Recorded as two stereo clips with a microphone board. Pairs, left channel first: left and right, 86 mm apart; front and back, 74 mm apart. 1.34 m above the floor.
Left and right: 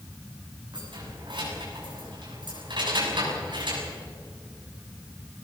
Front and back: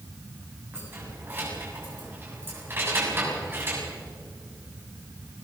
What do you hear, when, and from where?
0.7 s keys jangling: 120° right, 7 m